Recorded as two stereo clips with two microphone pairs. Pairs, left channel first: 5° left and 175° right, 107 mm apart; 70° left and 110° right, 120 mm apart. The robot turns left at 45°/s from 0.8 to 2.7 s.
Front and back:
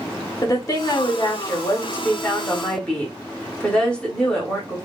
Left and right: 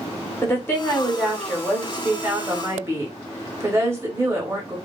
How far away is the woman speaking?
About 0.9 m.